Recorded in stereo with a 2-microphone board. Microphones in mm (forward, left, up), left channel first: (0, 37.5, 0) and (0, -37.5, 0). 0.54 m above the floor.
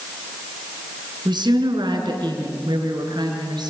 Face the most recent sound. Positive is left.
turn(degrees=-75)  # may be behind; listen again after turning